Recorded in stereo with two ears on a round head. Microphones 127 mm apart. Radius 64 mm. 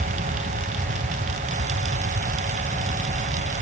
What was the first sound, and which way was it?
Only background noise.